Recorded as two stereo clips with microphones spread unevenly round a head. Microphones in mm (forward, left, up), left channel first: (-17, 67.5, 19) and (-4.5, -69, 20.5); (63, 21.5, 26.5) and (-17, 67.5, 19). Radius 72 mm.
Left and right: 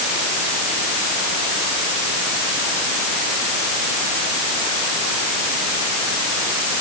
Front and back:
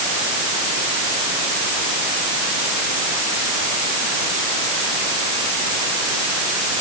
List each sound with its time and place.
Only background noise.